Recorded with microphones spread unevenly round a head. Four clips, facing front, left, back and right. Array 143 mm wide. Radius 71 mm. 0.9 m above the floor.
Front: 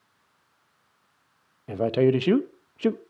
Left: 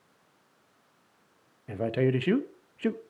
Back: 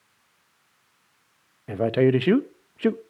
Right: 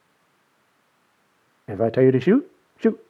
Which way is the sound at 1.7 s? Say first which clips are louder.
Right 10 dB, back 1 dB; 95° right.